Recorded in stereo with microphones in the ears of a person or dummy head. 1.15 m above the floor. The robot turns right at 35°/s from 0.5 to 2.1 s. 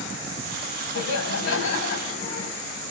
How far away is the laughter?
About 6.5 m.